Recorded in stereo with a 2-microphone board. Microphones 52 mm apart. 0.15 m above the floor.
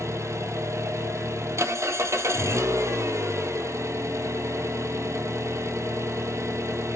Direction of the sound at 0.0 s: 65° right (ahead or behind).